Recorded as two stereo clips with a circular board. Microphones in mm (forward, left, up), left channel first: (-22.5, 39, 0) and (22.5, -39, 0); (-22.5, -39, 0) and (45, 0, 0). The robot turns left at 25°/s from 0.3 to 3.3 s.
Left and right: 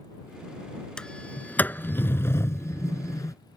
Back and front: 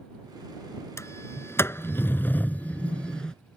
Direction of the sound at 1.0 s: 165° right.